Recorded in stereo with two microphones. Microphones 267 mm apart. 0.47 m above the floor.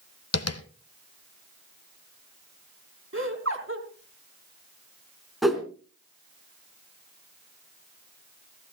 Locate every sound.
0.3 s tapping: 65° left (ahead or behind), 0.8 m
3.1 s laughter: 50° right (ahead or behind), 4 m
5.4 s a whoosh: centre (ahead or behind), 2.5 m